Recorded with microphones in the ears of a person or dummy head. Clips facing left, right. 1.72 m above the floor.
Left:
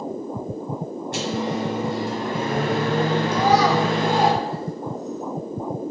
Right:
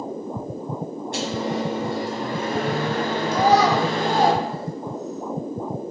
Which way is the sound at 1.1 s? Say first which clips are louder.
Even; 55° left (ahead or behind).